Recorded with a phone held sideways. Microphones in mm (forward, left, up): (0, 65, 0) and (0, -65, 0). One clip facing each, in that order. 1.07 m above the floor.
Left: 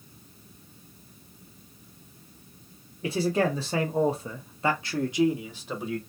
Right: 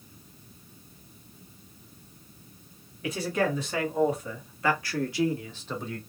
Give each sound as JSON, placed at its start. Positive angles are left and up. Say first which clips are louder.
{"t": 3.0, "sound": "a man speaking", "louder": "left 3 dB", "side_deg": 30, "distance_m": 1.1}